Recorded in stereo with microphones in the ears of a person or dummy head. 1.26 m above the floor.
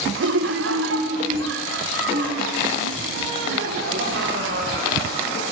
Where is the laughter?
80° right, 0.7 m; by 5.4 s 70° right (ahead or behind), 4.5 m.